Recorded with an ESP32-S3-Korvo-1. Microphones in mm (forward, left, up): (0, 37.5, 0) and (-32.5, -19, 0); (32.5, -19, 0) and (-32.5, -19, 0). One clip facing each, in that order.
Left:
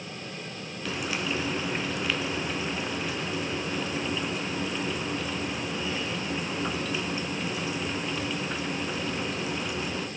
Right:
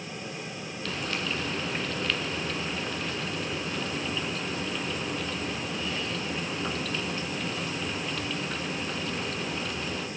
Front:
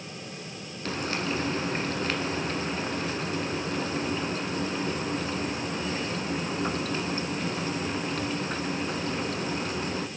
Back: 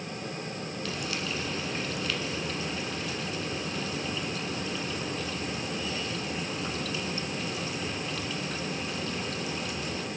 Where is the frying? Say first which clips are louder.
Left 2 dB, front 6 dB; 15° right, 0.8 m.